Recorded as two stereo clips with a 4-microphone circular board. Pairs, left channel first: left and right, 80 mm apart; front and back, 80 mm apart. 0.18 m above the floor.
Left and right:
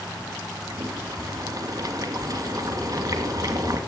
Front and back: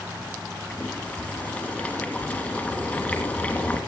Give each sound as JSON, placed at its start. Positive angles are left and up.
{"t": 0.7, "sound": "boiling", "azimuth_deg": -70, "distance_m": 2.5}